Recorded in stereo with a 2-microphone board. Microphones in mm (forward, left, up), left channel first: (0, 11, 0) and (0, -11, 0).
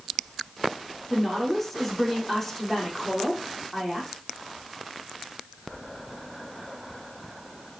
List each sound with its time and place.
1.1 s a woman speaking: 10° left (ahead or behind), 5.5 m